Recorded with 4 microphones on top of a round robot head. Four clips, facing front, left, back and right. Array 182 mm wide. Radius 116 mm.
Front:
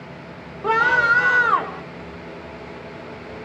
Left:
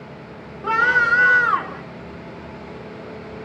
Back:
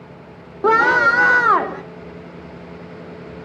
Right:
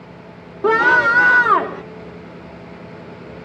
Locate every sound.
0.6 s a scream: 150° right, 1.8 m